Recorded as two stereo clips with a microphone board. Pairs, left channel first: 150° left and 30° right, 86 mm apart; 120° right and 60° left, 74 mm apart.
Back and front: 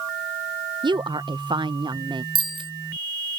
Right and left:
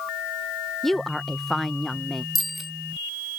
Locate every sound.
0.8 s a woman speaking: 35° right
2.4 s a bicycle bell: 30° right